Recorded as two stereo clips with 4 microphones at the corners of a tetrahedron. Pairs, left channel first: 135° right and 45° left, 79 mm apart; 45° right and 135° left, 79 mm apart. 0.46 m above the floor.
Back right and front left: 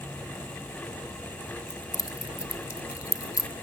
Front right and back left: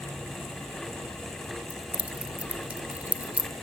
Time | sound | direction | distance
1.7 | keys jangling | 160° right | 1.0 m